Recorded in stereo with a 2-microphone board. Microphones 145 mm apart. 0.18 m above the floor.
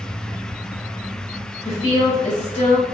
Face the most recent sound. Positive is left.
turn(degrees=40)  # may be behind; listen again after turning